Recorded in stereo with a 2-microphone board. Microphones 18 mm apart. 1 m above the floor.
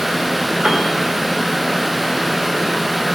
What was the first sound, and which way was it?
A piano, 85° right.